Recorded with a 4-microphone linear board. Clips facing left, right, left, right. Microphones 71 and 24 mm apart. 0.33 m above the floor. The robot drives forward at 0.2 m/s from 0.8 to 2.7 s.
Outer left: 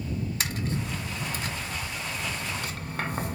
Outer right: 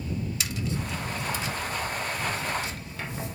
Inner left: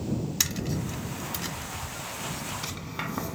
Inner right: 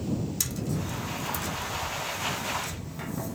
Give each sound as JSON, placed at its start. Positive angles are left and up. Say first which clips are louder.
{"t": 0.4, "sound": "tapping", "louder": "outer left 1 dB, inner left 2 dB", "side_deg": 40, "distance_m": 0.7}